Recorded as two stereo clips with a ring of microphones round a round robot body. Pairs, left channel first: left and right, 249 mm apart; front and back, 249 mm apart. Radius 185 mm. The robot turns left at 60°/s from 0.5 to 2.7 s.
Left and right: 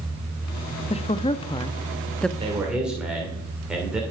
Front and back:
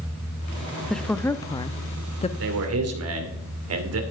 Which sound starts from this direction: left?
A woman speaking, at 0.9 s.